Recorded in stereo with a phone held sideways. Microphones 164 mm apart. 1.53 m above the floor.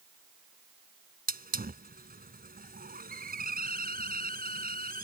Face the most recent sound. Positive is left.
turn(degrees=-65)  # may be behind; listen again after turning